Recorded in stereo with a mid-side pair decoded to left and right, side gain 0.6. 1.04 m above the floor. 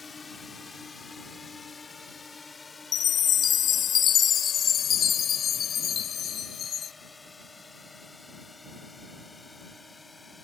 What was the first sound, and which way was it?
A drone, 25° left.